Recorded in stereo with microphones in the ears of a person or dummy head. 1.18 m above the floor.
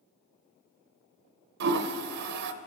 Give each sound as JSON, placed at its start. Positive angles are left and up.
{"t": 1.6, "sound": "a toilet flushing", "side_deg": -60, "distance_m": 0.6}